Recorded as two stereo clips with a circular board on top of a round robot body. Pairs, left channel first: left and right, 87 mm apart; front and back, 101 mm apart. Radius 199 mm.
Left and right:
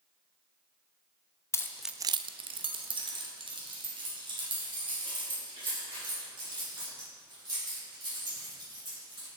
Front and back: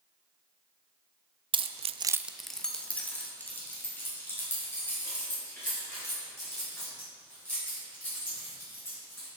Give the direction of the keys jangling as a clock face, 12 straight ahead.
7 o'clock.